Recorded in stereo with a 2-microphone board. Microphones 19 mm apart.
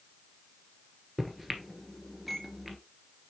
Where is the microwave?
5° right (ahead or behind), 1.6 m.